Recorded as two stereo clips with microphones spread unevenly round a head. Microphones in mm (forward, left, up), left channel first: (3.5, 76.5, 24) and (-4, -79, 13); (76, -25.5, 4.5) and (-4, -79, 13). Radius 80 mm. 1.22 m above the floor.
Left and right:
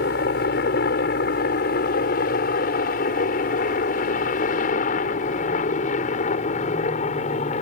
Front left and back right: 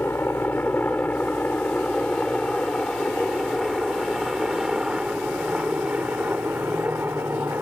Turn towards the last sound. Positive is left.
turn(degrees=135)